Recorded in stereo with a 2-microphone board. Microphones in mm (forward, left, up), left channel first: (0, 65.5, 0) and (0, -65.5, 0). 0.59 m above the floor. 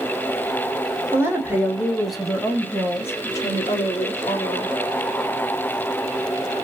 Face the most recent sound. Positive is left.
turn(degrees=50)  # may be behind; listen again after turning